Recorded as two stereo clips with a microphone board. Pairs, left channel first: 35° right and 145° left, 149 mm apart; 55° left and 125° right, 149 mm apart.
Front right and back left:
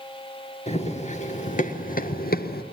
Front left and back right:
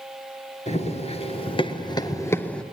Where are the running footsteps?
10° left, 2 m; by 2.6 s 30° right, 1.0 m.